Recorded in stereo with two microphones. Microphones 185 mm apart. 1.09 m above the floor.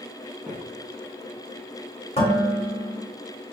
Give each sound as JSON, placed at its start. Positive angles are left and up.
{"t": 0.5, "sound": "footsteps", "side_deg": -10, "distance_m": 1.9}
{"t": 2.2, "sound": "dishes clattering", "side_deg": 35, "distance_m": 2.5}